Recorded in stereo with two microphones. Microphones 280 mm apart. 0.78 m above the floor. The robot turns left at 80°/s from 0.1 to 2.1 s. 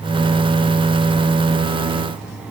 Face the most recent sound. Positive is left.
No sound to turn to.